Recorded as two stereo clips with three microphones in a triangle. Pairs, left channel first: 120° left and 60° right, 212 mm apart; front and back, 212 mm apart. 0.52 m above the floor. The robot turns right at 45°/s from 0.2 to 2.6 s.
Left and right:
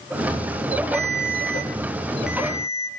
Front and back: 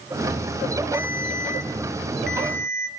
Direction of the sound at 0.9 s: 150° left.